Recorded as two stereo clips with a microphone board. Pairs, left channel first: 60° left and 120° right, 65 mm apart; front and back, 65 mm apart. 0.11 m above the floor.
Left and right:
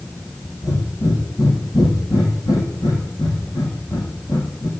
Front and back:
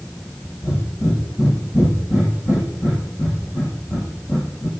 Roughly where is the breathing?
Ahead left.